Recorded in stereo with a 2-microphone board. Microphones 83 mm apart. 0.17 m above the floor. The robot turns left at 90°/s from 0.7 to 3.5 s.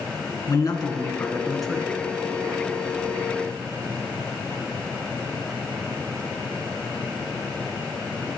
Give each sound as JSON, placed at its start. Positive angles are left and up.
{"t": 0.5, "sound": "a man speaking", "azimuth_deg": 85, "distance_m": 1.6}